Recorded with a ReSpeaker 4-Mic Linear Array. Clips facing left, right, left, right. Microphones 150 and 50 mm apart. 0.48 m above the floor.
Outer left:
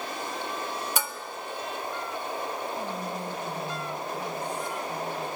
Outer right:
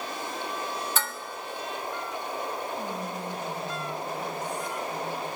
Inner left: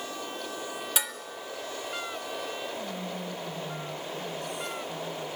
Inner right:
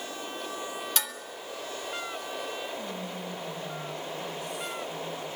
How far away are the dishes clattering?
About 0.9 m.